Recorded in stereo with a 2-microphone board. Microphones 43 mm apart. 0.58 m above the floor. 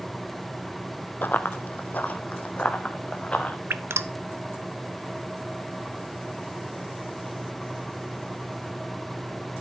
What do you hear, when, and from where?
1.2 s running footsteps: 50° left (ahead or behind), 0.8 m; by 3.6 s 30° left (ahead or behind), 2.5 m
3.7 s dripping: 80° right, 0.6 m